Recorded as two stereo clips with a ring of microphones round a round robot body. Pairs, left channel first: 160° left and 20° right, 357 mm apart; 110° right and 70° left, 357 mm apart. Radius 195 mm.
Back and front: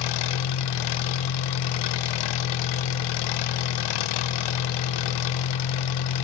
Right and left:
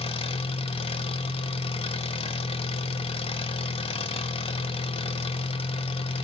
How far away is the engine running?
About 0.8 m.